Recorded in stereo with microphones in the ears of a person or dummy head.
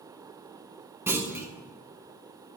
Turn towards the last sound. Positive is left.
turn(degrees=-15)  # may be behind; listen again after turning